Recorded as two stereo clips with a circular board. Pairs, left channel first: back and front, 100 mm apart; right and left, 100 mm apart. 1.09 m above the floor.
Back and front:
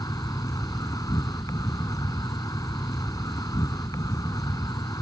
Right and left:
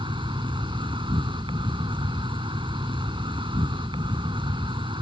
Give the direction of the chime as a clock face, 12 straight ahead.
I don't hear a chime.